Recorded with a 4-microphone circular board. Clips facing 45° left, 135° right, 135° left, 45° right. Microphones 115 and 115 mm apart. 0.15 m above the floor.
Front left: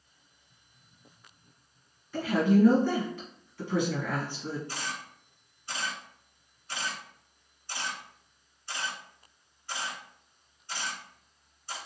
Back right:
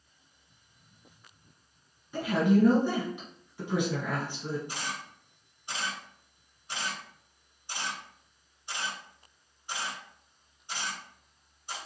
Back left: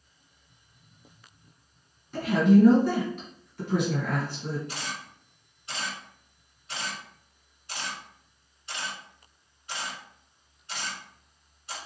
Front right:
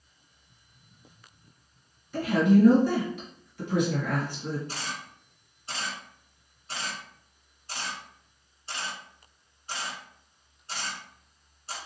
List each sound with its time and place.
2.1 s a woman speaking: 170° left, 2 m
4.7 s a camera shutter: 75° right, 1.6 m